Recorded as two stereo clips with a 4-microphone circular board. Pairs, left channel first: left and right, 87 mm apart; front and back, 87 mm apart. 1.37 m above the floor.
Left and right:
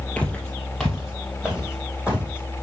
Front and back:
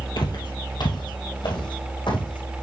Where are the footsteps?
15° left, 2.5 m; by 2.6 s 15° right, 4.5 m.